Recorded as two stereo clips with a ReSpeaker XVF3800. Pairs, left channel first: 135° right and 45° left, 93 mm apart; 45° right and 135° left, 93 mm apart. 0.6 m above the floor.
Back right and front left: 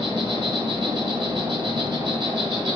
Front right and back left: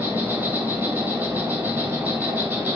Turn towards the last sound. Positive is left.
turn(degrees=60)